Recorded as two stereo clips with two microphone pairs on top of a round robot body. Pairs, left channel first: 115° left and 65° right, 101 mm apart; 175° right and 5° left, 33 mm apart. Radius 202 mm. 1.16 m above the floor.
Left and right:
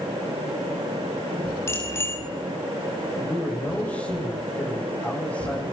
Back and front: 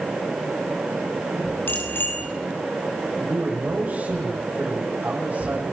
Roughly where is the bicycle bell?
Behind.